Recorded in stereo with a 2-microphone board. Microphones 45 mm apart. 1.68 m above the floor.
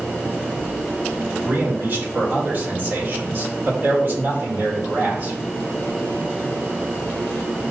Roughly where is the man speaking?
Right.